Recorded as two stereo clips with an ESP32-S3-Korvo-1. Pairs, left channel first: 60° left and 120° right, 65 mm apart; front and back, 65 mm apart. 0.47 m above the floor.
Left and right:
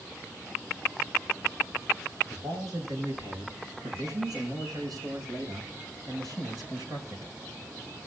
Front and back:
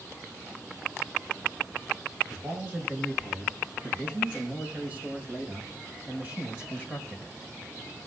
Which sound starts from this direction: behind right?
A man speaking, at 2.3 s.